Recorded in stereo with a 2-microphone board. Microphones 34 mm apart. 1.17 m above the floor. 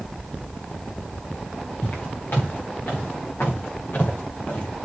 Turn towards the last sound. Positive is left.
turn(degrees=65)  # may be behind; listen again after turning